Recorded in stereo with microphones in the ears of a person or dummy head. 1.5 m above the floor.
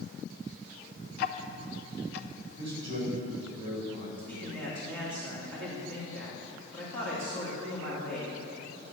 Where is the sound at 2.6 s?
30° right (ahead or behind), 3 m.